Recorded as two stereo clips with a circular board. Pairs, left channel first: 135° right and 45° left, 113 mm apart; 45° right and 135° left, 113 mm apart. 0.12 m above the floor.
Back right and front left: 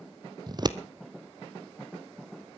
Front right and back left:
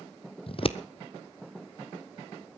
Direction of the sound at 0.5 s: 5° right.